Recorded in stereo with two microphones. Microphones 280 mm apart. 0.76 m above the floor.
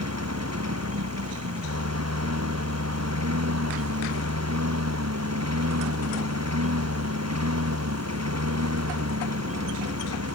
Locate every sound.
0.0 s a lawn mower: 75° right (ahead or behind)